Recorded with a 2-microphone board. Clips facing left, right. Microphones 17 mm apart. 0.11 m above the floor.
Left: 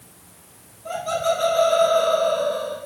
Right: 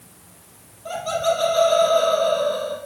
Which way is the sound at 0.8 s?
20° right (ahead or behind).